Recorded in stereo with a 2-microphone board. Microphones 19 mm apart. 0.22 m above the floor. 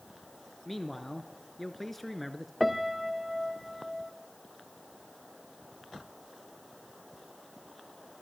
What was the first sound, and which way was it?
A man speaking, 10° left (ahead or behind).